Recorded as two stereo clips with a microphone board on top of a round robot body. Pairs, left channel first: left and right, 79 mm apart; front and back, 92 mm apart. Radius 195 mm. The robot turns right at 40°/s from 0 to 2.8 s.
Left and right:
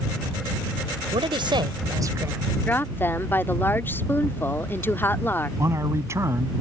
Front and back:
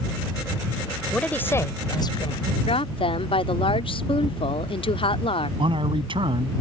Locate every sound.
1.1 s a man speaking: 80° right; by 2.5 s 25° right
2.7 s a woman speaking: 20° left; by 5.5 s 25° left
5.6 s a man speaking: 150° right